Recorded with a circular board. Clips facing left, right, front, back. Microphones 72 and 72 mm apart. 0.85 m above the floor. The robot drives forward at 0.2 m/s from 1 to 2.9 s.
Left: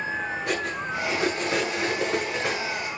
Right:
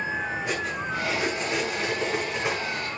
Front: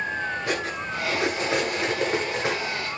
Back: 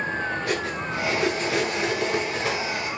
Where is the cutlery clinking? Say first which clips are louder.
Left 1 dB, back 1 dB; 65° left, 7.5 m.